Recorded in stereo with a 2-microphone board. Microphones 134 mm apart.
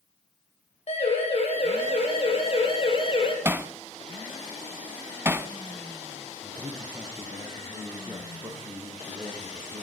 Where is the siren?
50° left (ahead or behind), 8 m; by 3.4 s 40° left (ahead or behind), 5 m.